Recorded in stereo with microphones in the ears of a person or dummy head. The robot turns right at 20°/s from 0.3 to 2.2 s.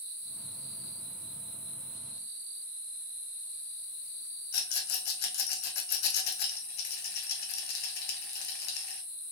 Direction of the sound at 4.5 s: 55° left (ahead or behind).